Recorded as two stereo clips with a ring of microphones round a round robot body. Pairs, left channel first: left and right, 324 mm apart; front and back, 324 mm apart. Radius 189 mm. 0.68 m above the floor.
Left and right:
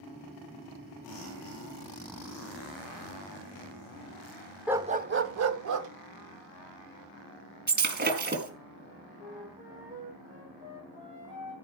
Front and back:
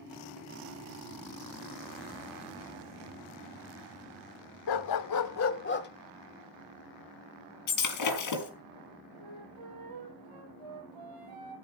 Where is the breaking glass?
30° right, 4.5 m.